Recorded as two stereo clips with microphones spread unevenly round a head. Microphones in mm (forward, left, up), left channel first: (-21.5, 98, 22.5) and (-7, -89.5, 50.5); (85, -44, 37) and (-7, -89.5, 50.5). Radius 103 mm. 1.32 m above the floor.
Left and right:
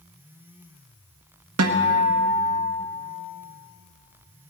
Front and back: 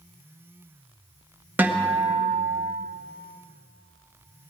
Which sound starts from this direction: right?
A guitar, at 1.6 s.